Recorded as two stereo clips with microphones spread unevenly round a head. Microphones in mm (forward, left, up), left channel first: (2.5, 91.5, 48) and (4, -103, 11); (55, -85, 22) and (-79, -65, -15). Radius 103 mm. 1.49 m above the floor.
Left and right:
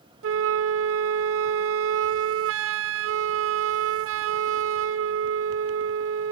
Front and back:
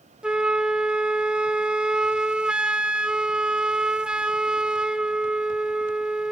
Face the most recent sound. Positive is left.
turn(degrees=-105)